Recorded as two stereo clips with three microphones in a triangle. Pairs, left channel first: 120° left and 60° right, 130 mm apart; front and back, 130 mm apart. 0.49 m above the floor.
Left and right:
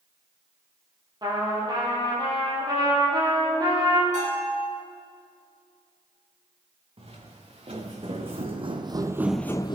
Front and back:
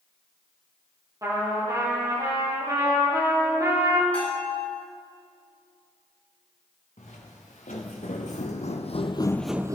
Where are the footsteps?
20° right, 3 m; by 9.8 s 140° left, 0.6 m.